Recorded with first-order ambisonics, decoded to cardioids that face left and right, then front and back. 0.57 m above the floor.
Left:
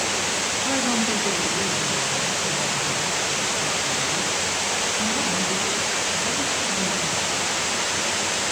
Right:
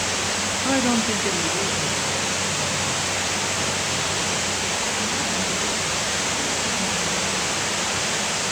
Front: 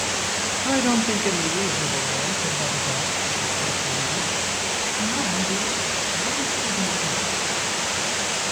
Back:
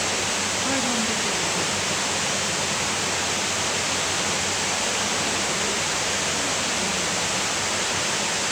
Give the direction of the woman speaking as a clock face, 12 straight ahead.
2 o'clock.